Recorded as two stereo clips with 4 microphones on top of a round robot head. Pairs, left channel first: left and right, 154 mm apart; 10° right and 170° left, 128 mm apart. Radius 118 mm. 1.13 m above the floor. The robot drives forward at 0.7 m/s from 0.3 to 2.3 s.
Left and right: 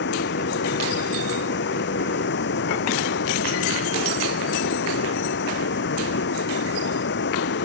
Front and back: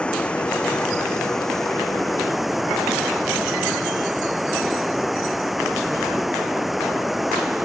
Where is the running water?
75° left; by 7.7 s 85° left.